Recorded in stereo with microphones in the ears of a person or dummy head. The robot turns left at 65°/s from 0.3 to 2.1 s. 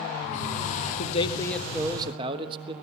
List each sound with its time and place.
1.0 s a man speaking: 40° left, 1.3 m; by 2.7 s 30° right, 1.3 m